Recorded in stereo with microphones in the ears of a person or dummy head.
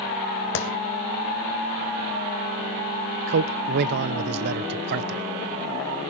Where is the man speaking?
55° right (ahead or behind), 0.6 m.